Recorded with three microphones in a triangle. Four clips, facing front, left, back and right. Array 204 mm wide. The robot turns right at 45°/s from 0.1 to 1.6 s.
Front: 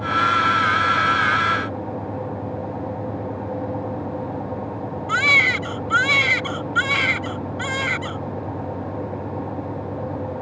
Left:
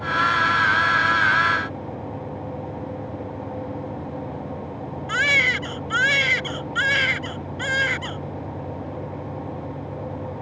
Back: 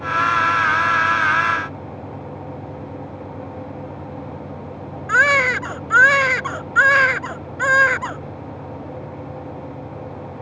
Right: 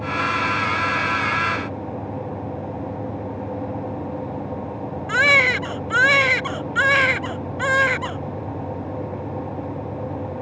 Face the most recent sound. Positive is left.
turn(degrees=-140)